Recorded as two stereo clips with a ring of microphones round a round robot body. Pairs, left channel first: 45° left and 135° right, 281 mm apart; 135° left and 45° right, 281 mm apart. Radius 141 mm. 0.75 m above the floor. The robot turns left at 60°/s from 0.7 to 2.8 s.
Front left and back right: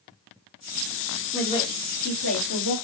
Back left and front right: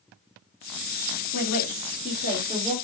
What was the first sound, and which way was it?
A woman speaking, 130° left.